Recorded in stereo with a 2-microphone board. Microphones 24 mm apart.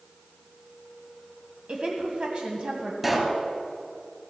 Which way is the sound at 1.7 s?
45° right (ahead or behind).